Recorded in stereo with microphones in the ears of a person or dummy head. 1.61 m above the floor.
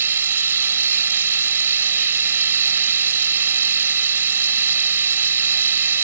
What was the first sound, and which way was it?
A machine running, 15° right (ahead or behind).